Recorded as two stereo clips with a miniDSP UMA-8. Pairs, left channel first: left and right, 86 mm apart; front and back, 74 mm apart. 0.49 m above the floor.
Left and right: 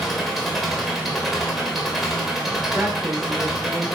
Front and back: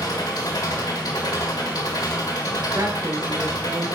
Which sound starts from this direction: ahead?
An engine running, at 0.0 s.